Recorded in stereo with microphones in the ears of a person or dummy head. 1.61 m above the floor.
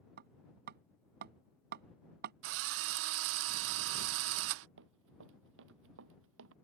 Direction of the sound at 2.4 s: 70° right (ahead or behind).